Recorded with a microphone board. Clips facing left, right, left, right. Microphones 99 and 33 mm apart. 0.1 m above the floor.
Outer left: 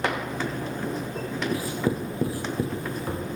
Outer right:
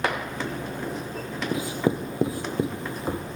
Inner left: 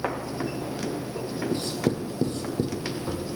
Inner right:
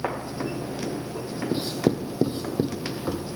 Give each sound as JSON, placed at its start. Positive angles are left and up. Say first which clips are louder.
{"t": 1.5, "sound": "writing", "louder": "outer right 3 dB, inner right 4 dB", "side_deg": -20, "distance_m": 0.7}